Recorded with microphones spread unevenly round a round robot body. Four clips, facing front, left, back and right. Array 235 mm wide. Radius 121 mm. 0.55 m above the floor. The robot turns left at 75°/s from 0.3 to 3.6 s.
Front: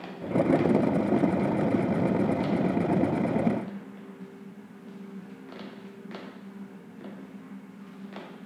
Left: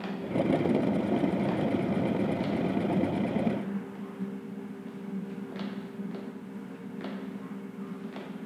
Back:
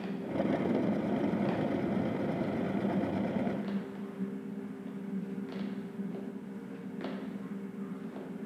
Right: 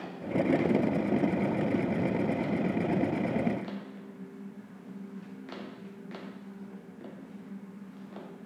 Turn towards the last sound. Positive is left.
No sound to turn to.